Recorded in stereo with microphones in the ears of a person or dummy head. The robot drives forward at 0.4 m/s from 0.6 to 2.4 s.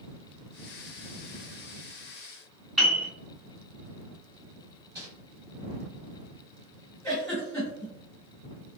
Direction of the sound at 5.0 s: 15° right (ahead or behind).